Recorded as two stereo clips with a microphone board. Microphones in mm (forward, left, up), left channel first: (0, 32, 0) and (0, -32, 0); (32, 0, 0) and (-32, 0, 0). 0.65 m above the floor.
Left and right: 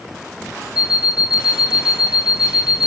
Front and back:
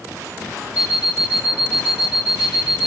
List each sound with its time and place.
0.8 s an alarm clock: 110° left, 7.5 m